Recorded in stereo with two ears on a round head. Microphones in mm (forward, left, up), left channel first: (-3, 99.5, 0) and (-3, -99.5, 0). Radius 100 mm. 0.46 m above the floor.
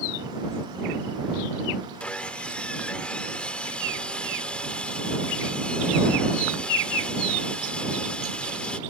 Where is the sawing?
5° left (ahead or behind).